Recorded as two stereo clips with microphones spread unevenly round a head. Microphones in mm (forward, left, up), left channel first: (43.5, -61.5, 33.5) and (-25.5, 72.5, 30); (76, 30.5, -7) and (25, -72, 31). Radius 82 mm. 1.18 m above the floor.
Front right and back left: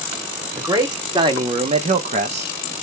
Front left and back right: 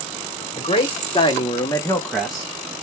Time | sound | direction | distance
0.6 | a man speaking | 50° left | 1.0 m